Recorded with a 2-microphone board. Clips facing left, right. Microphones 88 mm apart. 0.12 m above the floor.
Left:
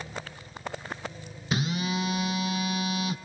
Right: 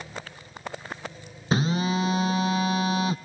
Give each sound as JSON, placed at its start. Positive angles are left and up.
{"t": 1.5, "sound": "a phone buzzing", "side_deg": -40, "distance_m": 0.6}